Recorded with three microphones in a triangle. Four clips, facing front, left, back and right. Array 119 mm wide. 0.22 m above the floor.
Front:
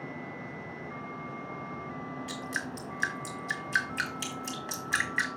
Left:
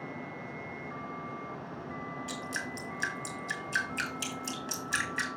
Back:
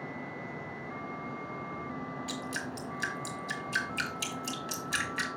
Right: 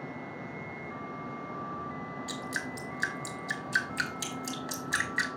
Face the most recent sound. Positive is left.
turn(degrees=-20)